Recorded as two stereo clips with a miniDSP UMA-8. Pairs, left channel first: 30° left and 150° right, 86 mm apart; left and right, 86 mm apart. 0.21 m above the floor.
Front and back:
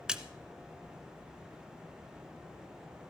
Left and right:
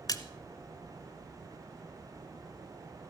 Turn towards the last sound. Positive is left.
turn(degrees=130)